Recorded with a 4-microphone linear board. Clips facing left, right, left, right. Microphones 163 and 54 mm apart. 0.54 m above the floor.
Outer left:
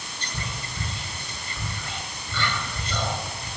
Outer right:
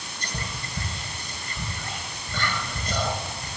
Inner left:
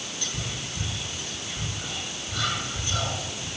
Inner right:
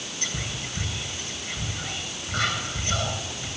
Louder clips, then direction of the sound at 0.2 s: Even, inner right 3 dB; 40° right (ahead or behind).